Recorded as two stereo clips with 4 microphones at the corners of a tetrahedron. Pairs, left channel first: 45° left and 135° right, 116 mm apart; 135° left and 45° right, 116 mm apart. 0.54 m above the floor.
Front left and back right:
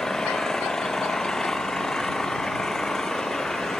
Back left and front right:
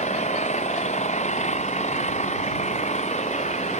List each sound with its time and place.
0.0 s an engine running: 130° left